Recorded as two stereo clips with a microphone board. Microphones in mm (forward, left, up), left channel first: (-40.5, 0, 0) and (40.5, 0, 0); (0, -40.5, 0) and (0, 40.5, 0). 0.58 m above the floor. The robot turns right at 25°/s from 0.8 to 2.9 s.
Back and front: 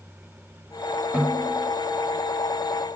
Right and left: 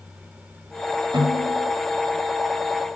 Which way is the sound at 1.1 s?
70° left.